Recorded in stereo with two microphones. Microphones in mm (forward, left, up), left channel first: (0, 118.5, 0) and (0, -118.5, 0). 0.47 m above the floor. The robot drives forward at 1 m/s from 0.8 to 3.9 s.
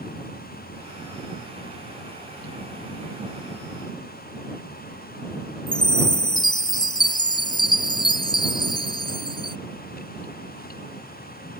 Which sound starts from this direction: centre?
A chime, at 5.7 s.